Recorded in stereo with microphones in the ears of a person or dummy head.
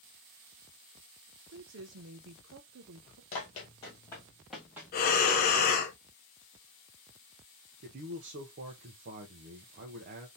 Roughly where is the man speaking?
Right.